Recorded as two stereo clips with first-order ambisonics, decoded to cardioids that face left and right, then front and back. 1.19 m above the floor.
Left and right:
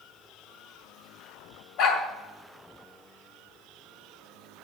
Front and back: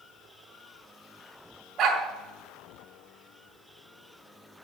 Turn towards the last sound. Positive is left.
turn(degrees=120)